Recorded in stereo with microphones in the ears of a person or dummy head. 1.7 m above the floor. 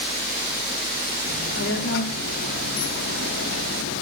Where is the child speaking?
60° left (ahead or behind), 3.5 m; by 4.0 s 70° left (ahead or behind), 2.5 m.